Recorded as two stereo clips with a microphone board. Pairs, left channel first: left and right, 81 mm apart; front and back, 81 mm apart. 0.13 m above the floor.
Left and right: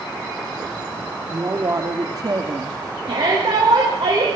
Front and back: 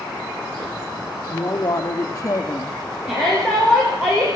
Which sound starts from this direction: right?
A shout, at 3.0 s.